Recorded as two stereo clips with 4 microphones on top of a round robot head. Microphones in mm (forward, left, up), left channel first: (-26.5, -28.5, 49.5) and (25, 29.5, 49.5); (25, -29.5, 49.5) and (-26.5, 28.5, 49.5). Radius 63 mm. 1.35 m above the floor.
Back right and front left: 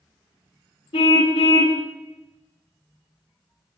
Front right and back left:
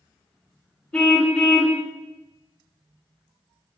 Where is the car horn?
130° right, 3 m.